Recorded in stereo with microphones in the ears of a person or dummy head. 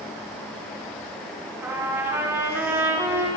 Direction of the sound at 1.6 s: 15° right (ahead or behind).